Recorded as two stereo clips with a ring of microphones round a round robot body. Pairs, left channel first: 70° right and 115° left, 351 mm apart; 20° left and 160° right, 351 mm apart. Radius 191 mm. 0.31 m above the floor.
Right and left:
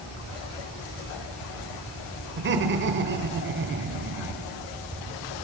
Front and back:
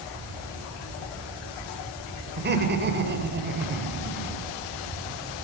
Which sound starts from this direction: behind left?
Laughter, at 2.4 s.